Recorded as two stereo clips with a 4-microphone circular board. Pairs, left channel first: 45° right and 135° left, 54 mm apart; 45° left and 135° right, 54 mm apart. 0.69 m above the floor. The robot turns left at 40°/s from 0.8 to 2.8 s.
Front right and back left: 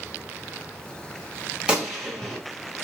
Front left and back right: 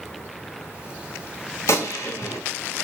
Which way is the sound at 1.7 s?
65° left.